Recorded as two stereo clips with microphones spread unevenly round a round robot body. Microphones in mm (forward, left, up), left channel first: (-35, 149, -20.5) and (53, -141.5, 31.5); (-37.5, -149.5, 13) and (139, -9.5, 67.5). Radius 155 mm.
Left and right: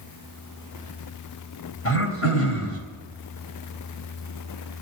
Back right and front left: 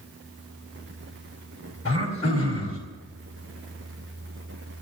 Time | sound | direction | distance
1.9 | throat clearing | 155° left | 3.5 m